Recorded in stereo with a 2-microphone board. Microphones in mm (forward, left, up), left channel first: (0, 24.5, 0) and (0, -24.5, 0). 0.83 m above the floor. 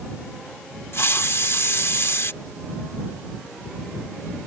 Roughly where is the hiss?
Left.